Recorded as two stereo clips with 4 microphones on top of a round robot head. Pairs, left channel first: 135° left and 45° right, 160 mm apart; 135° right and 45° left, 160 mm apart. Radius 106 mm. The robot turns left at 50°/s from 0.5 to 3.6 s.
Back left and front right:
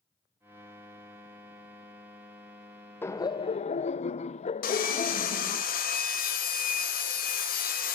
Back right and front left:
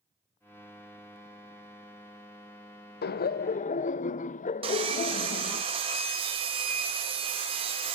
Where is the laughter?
145° right, 0.7 m; by 5.6 s 175° right, 0.7 m.